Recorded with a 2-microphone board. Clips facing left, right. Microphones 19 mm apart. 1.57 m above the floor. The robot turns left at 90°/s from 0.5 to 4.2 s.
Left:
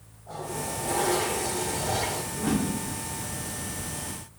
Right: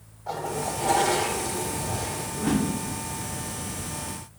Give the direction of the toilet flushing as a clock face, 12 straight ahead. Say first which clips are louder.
Right 4 dB; 3 o'clock.